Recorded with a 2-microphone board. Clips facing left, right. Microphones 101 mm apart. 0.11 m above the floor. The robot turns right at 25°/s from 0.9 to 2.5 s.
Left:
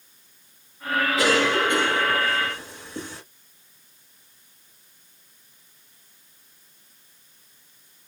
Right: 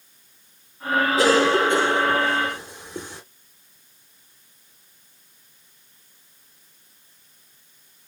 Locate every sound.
1.2 s a cough: 65° right, 2.5 m; by 3.2 s 30° right, 2.5 m